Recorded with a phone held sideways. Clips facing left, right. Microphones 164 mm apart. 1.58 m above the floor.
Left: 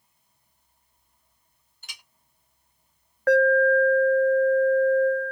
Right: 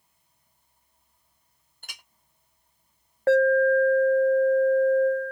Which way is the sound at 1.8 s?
50° right (ahead or behind).